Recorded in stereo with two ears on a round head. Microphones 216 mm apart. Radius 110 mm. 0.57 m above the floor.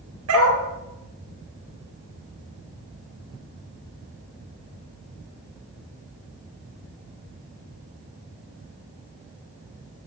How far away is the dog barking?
About 2.5 m.